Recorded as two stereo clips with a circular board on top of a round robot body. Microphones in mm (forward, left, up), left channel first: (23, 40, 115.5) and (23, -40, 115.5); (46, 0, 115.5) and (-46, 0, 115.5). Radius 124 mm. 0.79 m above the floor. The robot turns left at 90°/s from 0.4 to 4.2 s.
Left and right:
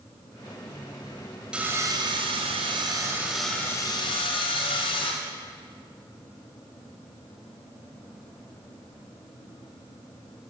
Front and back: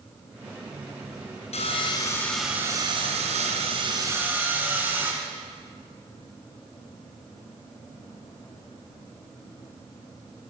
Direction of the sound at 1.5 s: 10° right.